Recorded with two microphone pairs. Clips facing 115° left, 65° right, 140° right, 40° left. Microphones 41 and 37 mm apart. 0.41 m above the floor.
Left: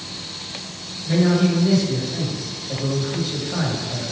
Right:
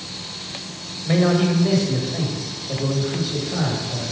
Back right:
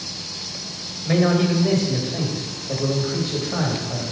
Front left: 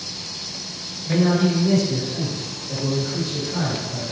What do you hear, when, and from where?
1.1 s a man speaking: 100° right, 1.9 m; by 4.0 s 165° right, 2.0 m